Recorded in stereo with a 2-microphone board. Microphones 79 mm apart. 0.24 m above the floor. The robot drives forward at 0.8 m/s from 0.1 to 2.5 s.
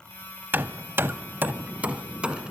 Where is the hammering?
25° right (ahead or behind), 0.6 m; by 2.5 s 10° right (ahead or behind), 1.4 m.